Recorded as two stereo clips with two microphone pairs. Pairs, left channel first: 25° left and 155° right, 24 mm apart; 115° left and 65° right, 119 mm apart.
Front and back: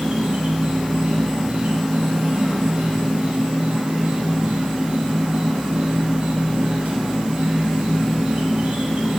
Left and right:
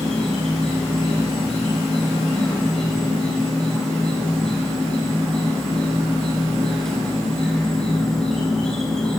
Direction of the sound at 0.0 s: 160° right.